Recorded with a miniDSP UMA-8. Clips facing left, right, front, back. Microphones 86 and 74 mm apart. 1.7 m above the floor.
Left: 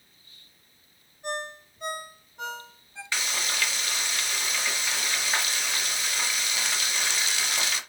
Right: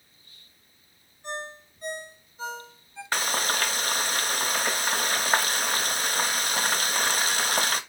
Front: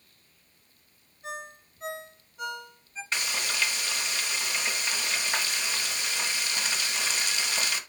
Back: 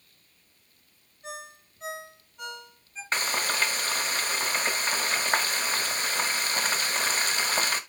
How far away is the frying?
About 0.8 m.